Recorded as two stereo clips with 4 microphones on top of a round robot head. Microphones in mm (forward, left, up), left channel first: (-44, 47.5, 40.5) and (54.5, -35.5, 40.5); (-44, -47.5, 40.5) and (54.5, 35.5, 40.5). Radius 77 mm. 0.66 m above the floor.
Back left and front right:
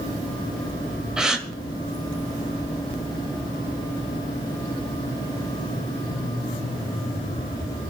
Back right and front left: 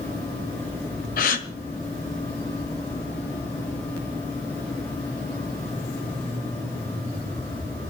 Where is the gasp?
125° right, 1.3 m.